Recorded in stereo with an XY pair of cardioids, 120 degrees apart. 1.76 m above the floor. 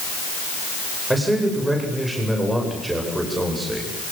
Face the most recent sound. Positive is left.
turn(degrees=-10)